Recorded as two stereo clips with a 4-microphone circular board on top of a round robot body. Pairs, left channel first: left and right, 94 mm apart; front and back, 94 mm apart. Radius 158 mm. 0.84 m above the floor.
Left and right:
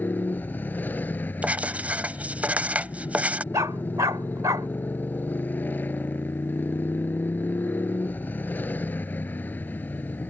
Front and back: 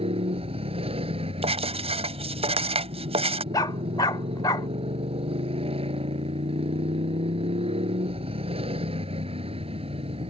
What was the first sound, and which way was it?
A motorcycle, 165° left.